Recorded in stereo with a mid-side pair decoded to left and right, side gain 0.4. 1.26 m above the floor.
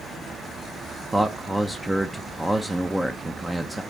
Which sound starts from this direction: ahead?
A man speaking, at 1.1 s.